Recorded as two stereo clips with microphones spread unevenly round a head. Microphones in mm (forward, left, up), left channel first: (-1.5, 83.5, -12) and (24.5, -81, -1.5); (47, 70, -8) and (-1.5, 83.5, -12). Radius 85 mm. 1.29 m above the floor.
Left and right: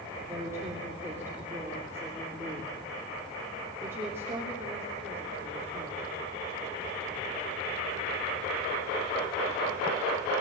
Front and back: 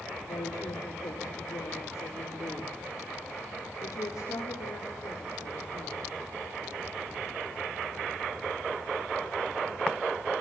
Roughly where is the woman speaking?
Ahead.